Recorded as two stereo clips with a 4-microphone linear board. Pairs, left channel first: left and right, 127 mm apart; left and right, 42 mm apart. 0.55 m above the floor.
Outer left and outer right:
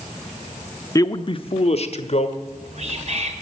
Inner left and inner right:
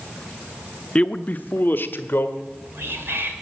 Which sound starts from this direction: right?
Whispering, at 2.4 s.